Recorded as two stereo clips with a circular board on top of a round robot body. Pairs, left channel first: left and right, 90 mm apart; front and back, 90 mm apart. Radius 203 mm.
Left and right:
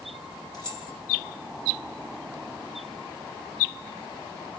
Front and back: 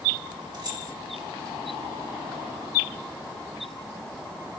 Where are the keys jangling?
135° left, 4 m.